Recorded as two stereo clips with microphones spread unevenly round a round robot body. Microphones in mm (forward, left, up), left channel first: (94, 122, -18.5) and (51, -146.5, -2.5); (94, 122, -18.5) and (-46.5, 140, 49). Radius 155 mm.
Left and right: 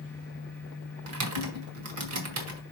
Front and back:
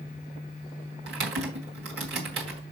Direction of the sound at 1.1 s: 145° right.